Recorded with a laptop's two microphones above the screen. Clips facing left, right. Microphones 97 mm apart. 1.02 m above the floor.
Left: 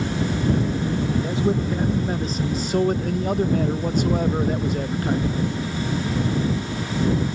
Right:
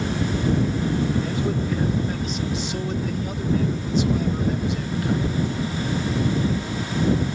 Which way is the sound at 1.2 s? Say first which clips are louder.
Left 3 dB; 25° left (ahead or behind).